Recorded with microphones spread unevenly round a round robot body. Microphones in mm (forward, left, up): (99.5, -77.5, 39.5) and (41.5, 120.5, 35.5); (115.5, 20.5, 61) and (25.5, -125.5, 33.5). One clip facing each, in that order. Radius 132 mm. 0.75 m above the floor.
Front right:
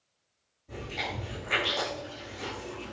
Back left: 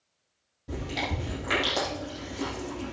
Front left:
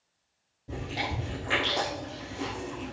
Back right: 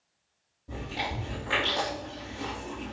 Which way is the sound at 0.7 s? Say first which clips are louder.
Back left 5 dB, front left 1 dB; 135° left.